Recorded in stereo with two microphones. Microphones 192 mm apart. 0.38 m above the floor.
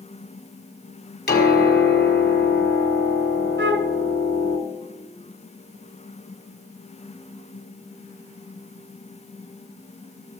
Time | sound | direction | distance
1.3 | a piano | 60° left (ahead or behind) | 1.9 m
3.6 | a flute | 80° right | 0.8 m